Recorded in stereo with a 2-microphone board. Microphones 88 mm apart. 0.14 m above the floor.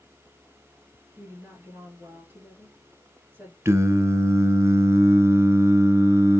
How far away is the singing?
About 0.5 m.